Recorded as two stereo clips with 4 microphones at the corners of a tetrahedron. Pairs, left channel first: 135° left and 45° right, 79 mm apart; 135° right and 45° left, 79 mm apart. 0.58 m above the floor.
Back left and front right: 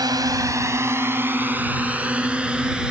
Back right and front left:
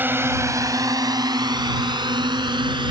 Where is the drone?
20° right; by 2.9 s 35° left.